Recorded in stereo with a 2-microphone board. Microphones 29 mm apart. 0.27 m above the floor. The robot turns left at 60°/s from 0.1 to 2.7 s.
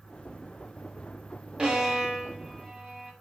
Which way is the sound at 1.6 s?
35° right (ahead or behind).